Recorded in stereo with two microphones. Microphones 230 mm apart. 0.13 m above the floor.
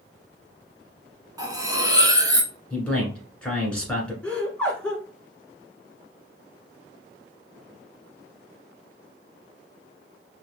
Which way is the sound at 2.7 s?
5° left (ahead or behind).